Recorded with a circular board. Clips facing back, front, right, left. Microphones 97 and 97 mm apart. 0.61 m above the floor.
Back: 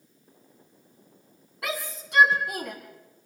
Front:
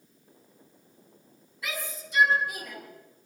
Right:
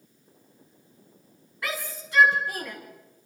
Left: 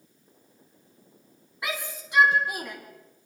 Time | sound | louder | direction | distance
1.6 | a shout | back 4 dB, even | 160° left | 5.5 m